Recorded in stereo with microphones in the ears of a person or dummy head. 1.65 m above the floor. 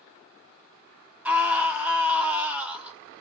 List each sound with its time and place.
1.2 s a scream: 10° right (ahead or behind), 0.9 m